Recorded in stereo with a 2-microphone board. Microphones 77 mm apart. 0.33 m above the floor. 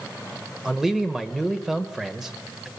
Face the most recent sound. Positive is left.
turn(degrees=-5)  # may be behind; listen again after turning